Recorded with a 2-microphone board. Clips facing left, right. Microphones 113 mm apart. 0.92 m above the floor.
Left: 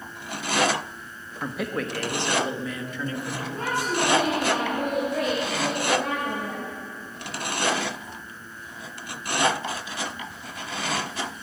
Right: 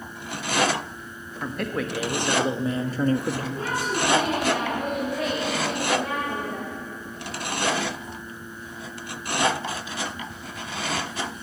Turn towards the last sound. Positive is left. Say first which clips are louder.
# left 1 dB
turn(degrees=60)  # may be behind; listen again after turning